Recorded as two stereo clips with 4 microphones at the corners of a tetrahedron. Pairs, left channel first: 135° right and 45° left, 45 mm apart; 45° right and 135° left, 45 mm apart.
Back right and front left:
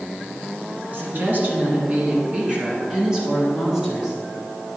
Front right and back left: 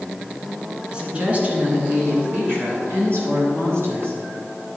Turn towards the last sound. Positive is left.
turn(degrees=130)